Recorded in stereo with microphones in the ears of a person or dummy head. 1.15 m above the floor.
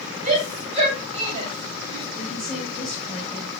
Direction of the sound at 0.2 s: 40° right (ahead or behind).